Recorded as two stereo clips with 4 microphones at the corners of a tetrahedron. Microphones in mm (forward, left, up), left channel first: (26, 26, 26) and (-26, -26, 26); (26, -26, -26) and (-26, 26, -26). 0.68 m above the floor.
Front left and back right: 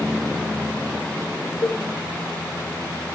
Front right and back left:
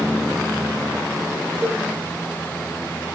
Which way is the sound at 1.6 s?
75° left.